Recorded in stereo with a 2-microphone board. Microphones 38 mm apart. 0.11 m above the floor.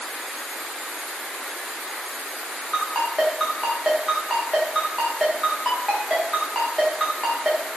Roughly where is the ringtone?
Centre.